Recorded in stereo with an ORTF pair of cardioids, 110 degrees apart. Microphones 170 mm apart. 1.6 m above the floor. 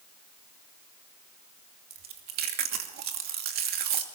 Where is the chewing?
70° right, 2.5 m.